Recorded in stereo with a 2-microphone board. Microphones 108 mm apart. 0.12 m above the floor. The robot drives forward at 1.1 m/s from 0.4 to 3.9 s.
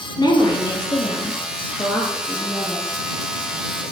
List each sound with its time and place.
0.2 s a woman speaking: 40° left (ahead or behind), 1.8 m; by 2.9 s 20° left (ahead or behind), 3 m